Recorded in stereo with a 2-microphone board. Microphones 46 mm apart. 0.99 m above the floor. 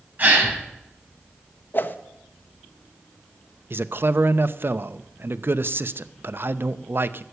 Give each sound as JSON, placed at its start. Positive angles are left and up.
{"t": 0.2, "sound": "a gasp", "side_deg": -35, "distance_m": 5.5}
{"t": 1.7, "sound": "a whoosh", "side_deg": 45, "distance_m": 1.0}
{"t": 3.7, "sound": "a man speaking", "side_deg": -55, "distance_m": 0.6}